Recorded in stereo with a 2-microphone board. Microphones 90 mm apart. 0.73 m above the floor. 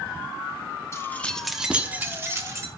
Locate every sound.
0.9 s keys jangling: 30° left (ahead or behind), 0.8 m; by 2.7 s 35° right (ahead or behind), 1.5 m